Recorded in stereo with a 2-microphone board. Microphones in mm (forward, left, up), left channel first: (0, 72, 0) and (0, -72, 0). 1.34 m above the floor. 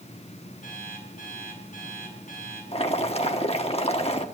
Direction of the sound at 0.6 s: 65° left (ahead or behind).